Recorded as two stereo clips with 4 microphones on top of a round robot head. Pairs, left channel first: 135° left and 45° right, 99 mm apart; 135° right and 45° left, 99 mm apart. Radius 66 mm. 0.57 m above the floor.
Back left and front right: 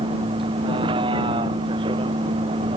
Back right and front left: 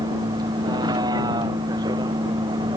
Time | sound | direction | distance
0.0 | a vehicle | 5° right | ?